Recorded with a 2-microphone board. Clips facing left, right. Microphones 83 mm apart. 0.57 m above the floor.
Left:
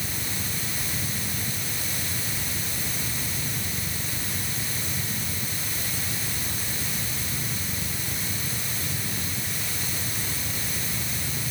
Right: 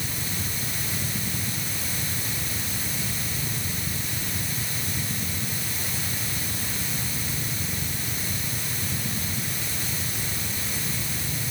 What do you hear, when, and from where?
Only background noise.